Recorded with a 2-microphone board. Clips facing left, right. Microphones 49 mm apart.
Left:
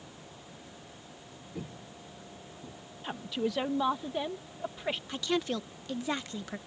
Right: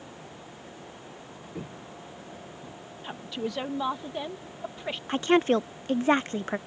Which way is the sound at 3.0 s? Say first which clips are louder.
Left 1 dB; centre (ahead or behind).